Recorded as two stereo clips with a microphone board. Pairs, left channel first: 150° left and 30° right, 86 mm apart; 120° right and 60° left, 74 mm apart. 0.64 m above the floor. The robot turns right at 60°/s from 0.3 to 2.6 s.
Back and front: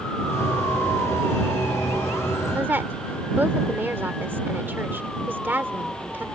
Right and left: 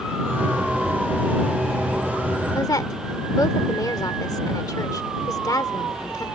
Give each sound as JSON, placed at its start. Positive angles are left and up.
{"t": 2.5, "sound": "a woman speaking", "azimuth_deg": -95}